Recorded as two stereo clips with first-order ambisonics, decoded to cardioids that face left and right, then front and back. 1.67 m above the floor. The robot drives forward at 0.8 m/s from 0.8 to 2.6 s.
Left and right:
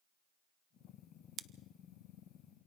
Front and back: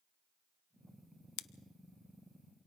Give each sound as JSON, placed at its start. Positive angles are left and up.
{"t": 1.4, "sound": "scissors", "azimuth_deg": -30, "distance_m": 0.6}